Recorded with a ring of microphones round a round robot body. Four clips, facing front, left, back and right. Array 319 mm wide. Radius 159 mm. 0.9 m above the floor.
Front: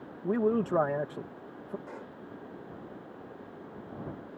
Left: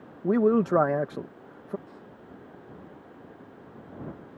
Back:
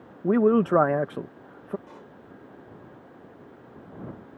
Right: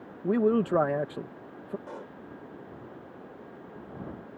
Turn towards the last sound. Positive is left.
turn(degrees=-75)